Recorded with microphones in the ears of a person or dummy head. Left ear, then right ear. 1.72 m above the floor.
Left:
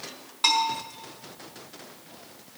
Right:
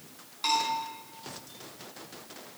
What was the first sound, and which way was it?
A bell, 30° left (ahead or behind).